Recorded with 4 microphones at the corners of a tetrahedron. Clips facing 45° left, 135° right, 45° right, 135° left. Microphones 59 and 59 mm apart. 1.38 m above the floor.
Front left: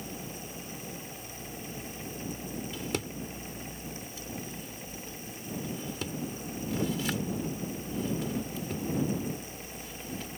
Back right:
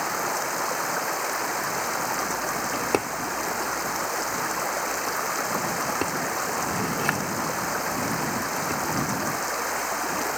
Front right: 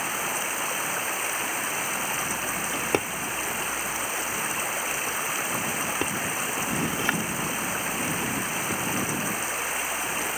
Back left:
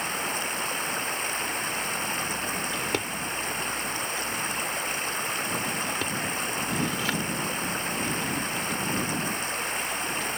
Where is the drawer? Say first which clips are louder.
Back right 9 dB, front right 3 dB; 110° right.